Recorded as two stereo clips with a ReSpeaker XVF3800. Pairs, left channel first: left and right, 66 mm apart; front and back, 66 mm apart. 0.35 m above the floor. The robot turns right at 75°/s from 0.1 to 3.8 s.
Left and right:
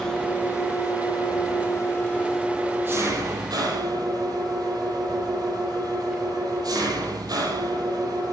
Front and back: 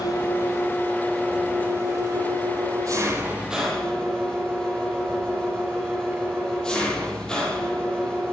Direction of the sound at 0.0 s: 5° left.